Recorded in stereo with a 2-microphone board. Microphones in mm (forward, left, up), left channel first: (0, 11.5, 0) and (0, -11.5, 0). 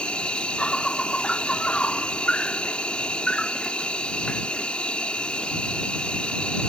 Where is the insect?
55° left (ahead or behind).